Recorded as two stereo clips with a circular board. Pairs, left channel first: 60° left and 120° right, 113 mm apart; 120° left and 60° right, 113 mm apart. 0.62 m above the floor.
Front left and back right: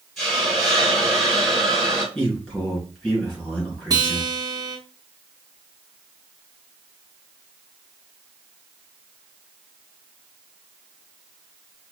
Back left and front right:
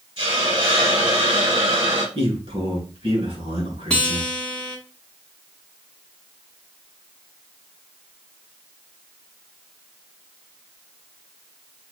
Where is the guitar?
160° right, 0.8 m.